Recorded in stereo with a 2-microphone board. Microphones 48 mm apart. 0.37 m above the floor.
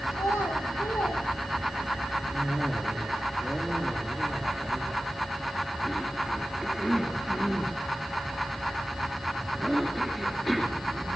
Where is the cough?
Centre (ahead or behind), 7 m.